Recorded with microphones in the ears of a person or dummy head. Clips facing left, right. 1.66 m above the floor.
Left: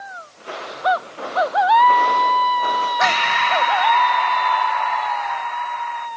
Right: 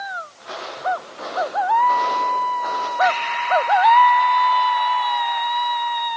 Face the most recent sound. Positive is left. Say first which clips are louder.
# right 4 dB
turn(degrees=75)  # may be behind; listen again after turning